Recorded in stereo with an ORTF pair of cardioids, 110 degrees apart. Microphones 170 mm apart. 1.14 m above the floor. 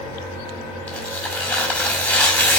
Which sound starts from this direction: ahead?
Tearing paper, at 0.9 s.